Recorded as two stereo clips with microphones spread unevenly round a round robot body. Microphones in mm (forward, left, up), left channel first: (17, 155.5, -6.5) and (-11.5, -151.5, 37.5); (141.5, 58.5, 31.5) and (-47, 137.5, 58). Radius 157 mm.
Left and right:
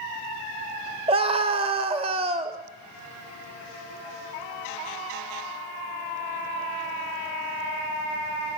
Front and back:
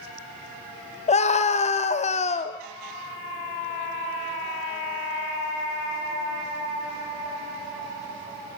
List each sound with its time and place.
1.1 s a scream: 20° right, 1.0 m